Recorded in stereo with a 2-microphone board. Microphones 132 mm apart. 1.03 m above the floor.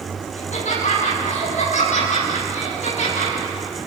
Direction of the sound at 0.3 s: 60° left (ahead or behind).